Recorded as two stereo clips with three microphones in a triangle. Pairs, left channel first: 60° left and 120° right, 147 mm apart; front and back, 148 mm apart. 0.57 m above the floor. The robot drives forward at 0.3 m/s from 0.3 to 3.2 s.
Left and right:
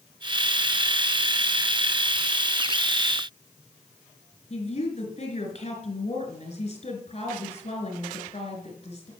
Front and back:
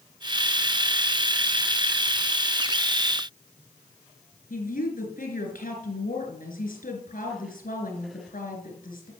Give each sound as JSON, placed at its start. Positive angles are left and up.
{"t": 4.5, "sound": "a woman speaking", "azimuth_deg": 15, "distance_m": 3.5}